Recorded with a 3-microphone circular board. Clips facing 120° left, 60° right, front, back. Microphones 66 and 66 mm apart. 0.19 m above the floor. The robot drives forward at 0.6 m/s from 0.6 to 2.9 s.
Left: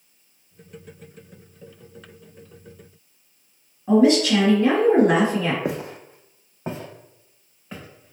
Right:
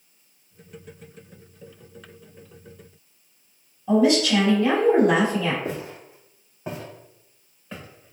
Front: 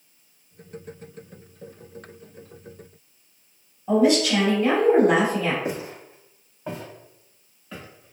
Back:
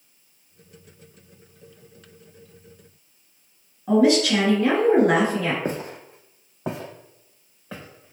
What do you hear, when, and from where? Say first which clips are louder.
3.9 s a woman speaking: left 2 dB, back 1 dB; 165° left, 1.9 m
5.7 s footsteps: left 3 dB, back 1 dB; 130° left, 0.5 m; by 8.1 s 150° right, 1.3 m